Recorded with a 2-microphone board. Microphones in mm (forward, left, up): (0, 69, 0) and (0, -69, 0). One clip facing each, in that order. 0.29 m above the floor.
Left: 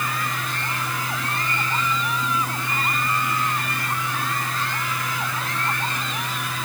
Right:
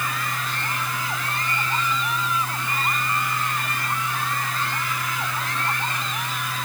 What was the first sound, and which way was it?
Only background noise.